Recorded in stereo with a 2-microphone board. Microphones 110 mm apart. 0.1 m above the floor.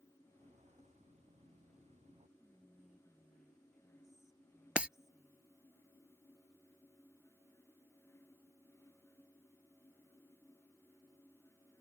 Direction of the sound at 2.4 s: 5° right (ahead or behind).